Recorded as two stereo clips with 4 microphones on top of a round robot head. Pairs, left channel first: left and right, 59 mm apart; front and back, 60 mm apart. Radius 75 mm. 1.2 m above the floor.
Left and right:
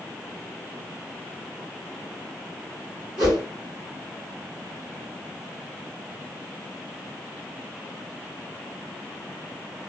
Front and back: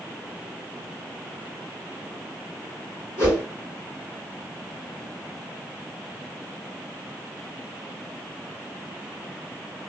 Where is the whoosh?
75° right, 1.9 m.